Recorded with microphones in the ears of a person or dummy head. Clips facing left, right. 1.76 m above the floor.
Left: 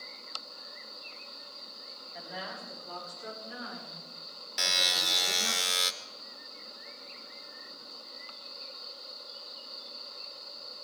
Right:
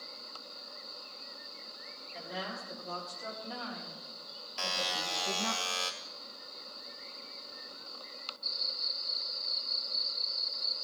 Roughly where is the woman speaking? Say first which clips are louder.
Right 1 dB; right.